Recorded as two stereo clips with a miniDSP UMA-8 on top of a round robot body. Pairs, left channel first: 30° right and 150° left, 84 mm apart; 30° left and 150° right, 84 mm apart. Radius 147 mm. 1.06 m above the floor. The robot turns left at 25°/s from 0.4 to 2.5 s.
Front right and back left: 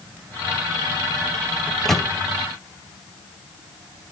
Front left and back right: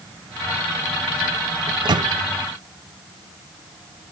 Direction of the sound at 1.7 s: 110° right.